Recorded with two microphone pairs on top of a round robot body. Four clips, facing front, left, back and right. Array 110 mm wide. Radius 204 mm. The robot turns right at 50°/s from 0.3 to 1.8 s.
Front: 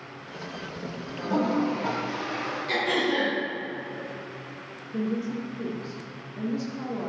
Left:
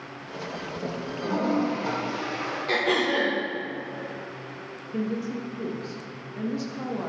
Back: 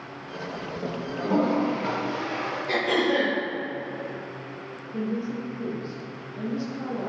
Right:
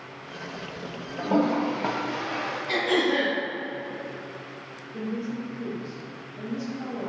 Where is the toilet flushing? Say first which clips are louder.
Right 2 dB, back 2 dB; 100° right, 0.7 m; by 2.6 s 70° right, 0.7 m.